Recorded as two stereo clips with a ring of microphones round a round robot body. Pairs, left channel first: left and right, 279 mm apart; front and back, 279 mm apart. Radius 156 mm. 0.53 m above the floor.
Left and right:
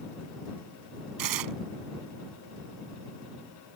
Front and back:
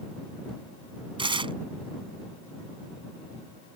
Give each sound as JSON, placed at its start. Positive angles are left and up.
{"t": 1.2, "sound": "tearing paper", "azimuth_deg": -110}